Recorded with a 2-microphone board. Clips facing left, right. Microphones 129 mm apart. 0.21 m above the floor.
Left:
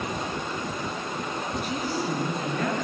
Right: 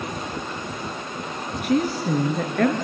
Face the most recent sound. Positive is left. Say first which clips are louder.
# right 11 dB
turn(degrees=-60)  # may be behind; listen again after turning